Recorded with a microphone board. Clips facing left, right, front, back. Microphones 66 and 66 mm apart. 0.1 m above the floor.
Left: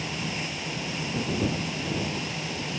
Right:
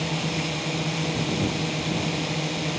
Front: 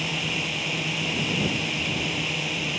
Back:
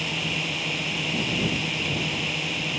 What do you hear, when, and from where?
0.0 s a drone: 90° right